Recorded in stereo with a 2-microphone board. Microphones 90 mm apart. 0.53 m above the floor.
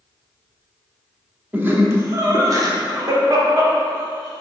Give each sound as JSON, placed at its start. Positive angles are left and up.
{"t": 1.5, "sound": "laughter", "side_deg": -20, "distance_m": 0.8}